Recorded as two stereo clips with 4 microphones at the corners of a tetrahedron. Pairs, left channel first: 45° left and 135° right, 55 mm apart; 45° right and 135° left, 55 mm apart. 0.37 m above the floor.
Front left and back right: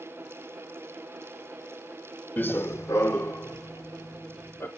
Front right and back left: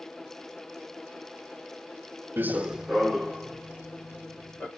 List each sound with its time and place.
2.4 s running footsteps: 95° left, 0.6 m; by 4.7 s 25° left, 2 m